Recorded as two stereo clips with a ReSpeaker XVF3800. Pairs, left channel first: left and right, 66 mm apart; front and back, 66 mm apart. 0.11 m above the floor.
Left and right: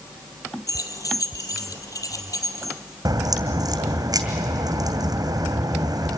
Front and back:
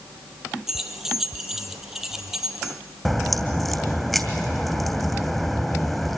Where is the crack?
85° right, 2.5 m.